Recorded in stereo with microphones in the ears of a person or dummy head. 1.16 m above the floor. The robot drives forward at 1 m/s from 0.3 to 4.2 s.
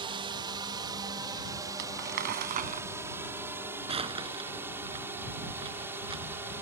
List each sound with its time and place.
0.0 s a drone: 25° right (ahead or behind); by 6.6 s 15° right (ahead or behind)
1.8 s crumpling: 60° right (ahead or behind); by 6.6 s 30° right (ahead or behind)